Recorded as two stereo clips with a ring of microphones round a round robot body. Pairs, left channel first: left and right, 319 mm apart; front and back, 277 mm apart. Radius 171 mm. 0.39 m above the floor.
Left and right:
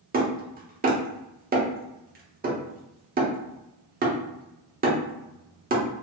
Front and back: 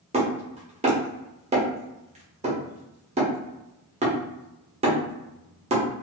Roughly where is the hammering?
Behind right.